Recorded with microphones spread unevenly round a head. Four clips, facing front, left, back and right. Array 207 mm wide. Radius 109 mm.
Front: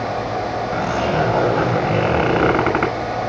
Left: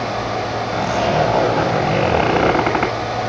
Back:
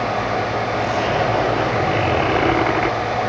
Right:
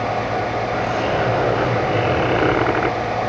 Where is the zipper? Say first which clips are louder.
Left 5 dB, front 2 dB; 35° left, 7.5 m.